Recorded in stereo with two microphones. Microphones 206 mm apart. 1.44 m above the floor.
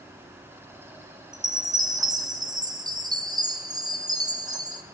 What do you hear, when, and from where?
1.3 s a chime: 20° right (ahead or behind), 0.8 m